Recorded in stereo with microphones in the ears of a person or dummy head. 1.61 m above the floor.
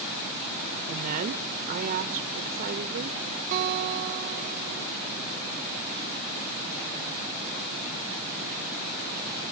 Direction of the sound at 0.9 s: 45° right (ahead or behind).